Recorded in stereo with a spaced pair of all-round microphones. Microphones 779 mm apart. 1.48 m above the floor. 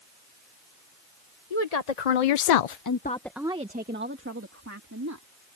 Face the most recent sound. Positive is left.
turn(degrees=-20)  # may be behind; listen again after turning